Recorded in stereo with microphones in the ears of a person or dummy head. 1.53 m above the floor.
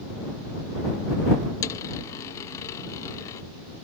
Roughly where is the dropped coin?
Left.